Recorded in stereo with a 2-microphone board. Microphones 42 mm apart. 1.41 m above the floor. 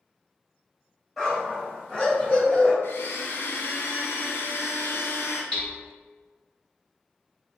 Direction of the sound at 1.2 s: 5° left (ahead or behind).